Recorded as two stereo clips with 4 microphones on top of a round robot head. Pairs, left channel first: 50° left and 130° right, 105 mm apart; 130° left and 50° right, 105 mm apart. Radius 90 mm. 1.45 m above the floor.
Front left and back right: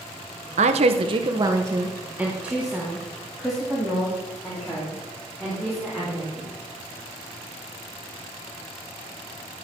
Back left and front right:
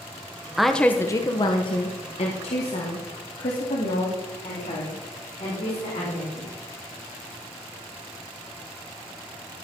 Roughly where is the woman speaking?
Behind right.